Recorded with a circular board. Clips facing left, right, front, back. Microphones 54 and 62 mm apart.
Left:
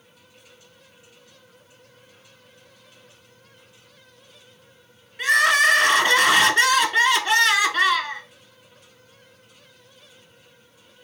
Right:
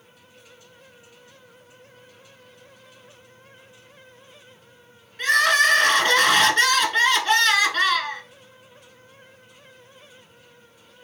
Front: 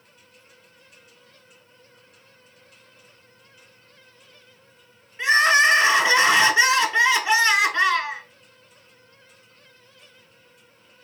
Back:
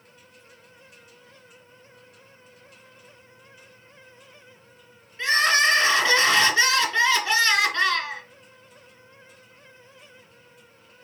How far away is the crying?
About 1.0 m.